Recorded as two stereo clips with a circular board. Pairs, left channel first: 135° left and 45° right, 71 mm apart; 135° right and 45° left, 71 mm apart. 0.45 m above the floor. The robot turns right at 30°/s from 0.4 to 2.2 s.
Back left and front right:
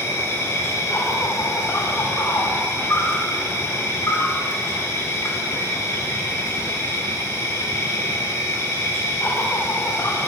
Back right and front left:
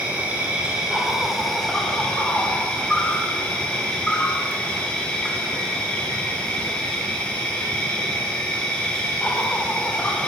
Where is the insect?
105° left, 0.8 m; by 10.3 s 160° left, 0.8 m.